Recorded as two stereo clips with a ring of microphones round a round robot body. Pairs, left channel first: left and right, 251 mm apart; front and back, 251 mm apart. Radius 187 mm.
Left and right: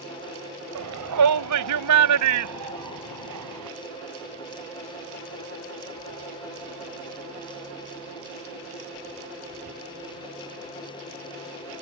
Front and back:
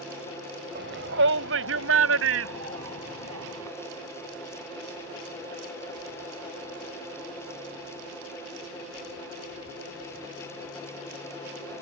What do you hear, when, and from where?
0.8 s a shout: 120° right; by 3.7 s 130° right